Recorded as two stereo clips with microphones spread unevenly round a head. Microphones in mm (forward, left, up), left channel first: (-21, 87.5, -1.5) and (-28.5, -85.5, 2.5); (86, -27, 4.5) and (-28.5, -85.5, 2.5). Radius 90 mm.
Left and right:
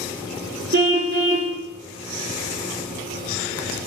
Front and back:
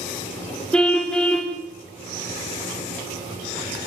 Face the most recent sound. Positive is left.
turn(degrees=-55)